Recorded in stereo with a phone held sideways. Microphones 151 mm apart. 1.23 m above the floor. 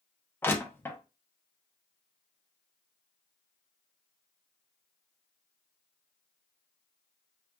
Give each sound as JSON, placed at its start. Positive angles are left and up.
{"t": 0.4, "sound": "crushing", "side_deg": 15, "distance_m": 0.6}